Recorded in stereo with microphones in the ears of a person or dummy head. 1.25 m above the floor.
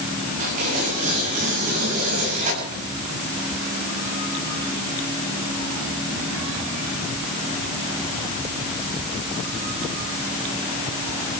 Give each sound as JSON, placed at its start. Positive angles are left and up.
{"t": 0.4, "sound": "tearing paper", "side_deg": -40, "distance_m": 8.5}